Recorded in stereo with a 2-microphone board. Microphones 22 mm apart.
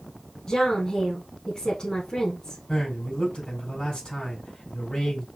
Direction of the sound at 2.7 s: 55° left (ahead or behind).